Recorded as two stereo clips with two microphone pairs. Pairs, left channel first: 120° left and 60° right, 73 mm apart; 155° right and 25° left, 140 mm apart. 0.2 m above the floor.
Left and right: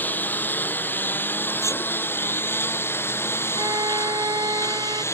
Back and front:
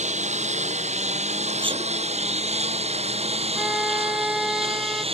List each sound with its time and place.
0.0 s a lawn mower: 55° left; by 5.2 s 70° left
1.6 s a sneeze: 75° left
3.5 s a violin: 60° right